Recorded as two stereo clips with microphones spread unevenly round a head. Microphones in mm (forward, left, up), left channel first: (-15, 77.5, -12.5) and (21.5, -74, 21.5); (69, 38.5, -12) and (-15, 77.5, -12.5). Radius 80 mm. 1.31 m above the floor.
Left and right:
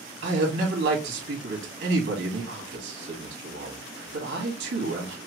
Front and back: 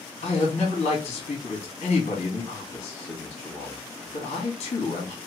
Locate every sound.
0.2 s a man speaking: 65° right, 2.5 m